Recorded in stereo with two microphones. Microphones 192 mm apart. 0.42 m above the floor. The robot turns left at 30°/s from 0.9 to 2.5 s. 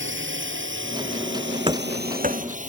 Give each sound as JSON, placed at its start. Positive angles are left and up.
{"t": 0.0, "sound": "a drone", "side_deg": -80}
{"t": 1.7, "sound": "running footsteps", "side_deg": -25}